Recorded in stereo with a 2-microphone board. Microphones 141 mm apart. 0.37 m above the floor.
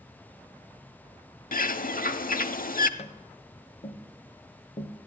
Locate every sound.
1.5 s a bird: 85° left, 0.6 m
3.0 s tapping: 50° left (ahead or behind), 1.0 m